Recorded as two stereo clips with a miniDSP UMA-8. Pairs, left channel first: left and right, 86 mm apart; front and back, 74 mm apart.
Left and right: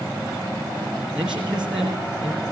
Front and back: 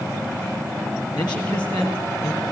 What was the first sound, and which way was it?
A man speaking, 10° right.